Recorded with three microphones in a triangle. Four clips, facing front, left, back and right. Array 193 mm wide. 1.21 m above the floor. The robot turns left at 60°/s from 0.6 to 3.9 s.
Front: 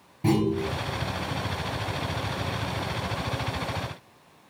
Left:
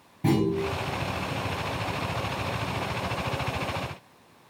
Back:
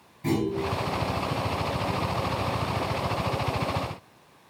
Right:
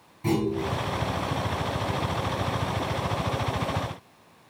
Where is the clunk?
50° left, 4 m; by 0.7 s 45° left, 4 m.